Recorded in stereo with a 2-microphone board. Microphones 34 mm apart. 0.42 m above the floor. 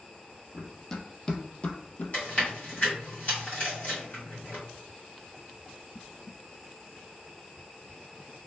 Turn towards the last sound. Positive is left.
turn(degrees=40)  # may be behind; listen again after turning